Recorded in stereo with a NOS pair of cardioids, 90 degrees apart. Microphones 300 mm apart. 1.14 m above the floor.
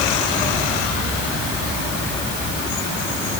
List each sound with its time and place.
Only background noise.